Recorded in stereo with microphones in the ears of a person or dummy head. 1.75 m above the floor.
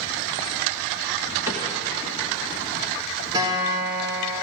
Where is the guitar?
25° right (ahead or behind), 2.5 m.